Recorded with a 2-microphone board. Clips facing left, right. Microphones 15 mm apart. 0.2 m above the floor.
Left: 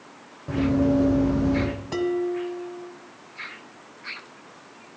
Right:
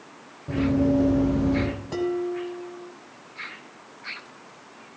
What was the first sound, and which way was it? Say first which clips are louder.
Running footsteps: even; 25° left (ahead or behind).